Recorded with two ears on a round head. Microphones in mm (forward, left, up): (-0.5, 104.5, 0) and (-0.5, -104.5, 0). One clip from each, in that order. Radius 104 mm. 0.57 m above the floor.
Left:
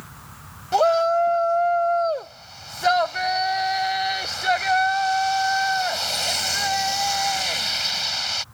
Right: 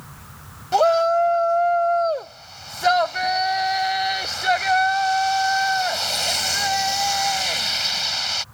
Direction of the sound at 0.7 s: 5° right (ahead or behind).